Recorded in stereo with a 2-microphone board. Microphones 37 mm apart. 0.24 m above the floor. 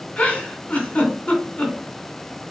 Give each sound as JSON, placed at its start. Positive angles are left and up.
{"t": 0.2, "sound": "a giggle", "side_deg": 40, "distance_m": 2.5}